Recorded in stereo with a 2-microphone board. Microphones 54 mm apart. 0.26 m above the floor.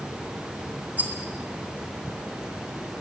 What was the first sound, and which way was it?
A rattle, 35° right (ahead or behind).